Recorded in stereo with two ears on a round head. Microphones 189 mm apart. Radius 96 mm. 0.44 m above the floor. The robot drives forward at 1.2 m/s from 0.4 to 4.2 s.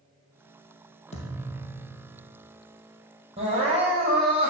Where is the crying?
30° right (ahead or behind), 5 m; by 4.5 s 25° right (ahead or behind), 6 m.